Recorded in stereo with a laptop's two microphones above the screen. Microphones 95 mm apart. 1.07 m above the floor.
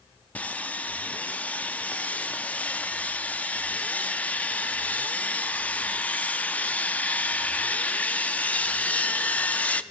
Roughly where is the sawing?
Centre.